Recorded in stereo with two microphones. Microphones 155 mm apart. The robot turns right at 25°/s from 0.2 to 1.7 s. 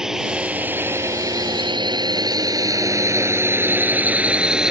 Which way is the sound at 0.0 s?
5° right (ahead or behind).